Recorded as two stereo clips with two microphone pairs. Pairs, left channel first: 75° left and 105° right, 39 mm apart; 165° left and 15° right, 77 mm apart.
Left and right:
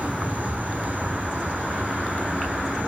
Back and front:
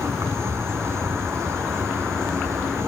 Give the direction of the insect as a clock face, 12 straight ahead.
2 o'clock.